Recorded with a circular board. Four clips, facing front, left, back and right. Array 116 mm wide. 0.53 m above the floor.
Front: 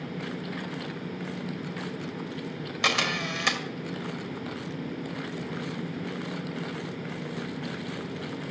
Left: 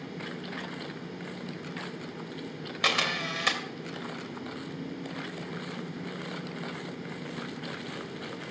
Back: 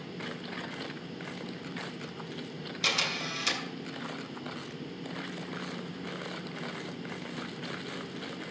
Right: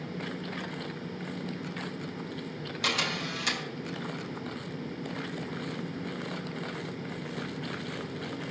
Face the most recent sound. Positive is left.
turn(degrees=35)